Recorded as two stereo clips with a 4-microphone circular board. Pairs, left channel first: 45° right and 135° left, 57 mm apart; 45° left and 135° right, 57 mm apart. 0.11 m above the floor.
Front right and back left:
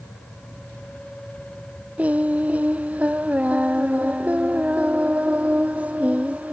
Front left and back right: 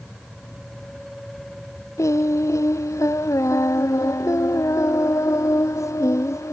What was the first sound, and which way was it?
Singing, 70° left.